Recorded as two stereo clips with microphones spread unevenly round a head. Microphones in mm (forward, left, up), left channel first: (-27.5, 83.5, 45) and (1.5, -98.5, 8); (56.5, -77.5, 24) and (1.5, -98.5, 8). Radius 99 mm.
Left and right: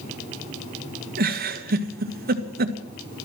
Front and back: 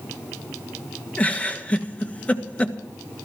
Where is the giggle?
55° right, 1.7 m.